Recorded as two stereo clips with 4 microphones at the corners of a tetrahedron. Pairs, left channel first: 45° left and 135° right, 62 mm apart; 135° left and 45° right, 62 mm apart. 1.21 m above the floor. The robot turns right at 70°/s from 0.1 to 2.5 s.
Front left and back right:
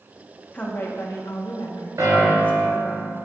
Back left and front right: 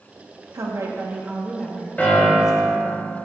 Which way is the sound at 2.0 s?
155° right.